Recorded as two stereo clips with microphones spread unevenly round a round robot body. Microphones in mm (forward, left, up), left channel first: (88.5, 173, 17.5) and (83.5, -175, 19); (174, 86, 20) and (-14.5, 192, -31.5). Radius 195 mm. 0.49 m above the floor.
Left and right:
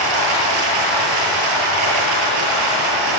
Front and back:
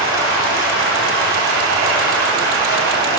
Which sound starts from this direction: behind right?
Running water, at 0.0 s.